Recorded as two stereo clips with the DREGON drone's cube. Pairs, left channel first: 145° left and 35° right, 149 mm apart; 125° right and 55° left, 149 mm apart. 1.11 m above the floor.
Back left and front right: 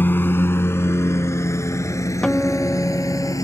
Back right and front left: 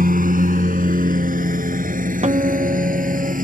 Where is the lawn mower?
70° left; by 3.4 s 80° left.